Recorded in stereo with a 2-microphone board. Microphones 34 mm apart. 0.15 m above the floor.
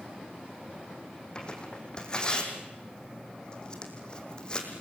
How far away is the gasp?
No gasp in this recording.